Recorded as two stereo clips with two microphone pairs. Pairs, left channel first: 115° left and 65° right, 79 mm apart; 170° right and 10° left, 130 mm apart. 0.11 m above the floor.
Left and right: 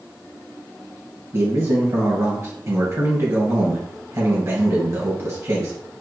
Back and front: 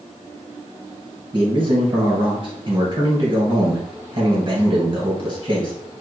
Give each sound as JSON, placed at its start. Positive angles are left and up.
{"t": 1.3, "sound": "a man speaking", "azimuth_deg": -25, "distance_m": 2.0}